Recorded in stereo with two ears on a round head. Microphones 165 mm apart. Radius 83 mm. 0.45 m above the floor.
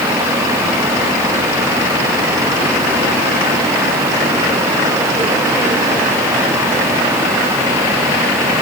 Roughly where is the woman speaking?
No woman speaking in this recording.